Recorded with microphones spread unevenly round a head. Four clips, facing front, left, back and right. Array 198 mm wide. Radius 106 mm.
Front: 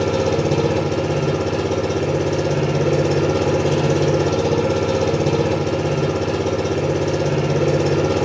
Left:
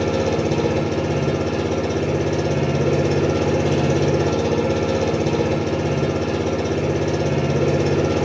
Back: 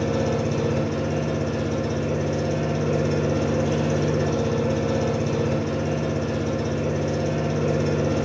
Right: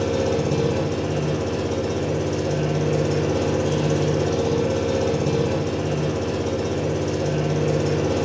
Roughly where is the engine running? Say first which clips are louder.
Left 2 dB, front 5 dB; ahead left.